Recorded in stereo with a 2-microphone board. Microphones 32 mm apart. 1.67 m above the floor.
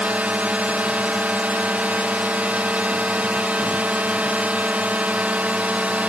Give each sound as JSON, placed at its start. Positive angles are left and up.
{"t": 0.0, "sound": "a drone", "side_deg": -55}